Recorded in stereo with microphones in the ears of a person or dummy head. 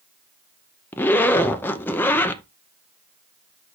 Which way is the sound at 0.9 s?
10° left (ahead or behind).